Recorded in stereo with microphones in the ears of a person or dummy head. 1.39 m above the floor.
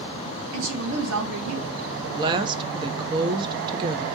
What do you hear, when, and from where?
0.5 s a woman speaking: 75° right (ahead or behind), 1.7 m
2.0 s a woman speaking: 25° right (ahead or behind), 1.0 m